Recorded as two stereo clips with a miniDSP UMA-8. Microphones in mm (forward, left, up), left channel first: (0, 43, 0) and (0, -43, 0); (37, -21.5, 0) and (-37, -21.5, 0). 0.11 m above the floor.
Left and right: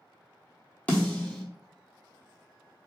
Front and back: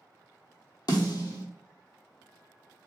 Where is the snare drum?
15° left, 0.9 m.